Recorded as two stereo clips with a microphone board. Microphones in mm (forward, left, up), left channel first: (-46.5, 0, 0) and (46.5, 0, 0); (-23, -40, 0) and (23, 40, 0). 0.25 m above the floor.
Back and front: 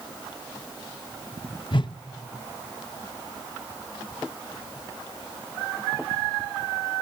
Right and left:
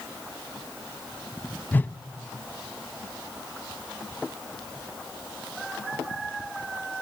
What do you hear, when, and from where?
1.7 s a whoosh: 175° left, 0.6 m